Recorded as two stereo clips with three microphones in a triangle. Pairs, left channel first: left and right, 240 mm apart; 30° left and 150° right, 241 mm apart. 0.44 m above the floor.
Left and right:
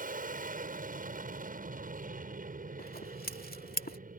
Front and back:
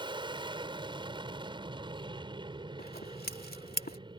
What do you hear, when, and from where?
0.0 s an aircraft: 95° right
2.8 s scissors: 60° left